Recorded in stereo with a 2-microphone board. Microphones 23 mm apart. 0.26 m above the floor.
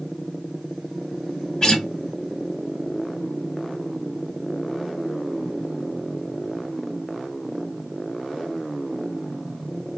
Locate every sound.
1.6 s a guitar: 30° left (ahead or behind), 1.0 m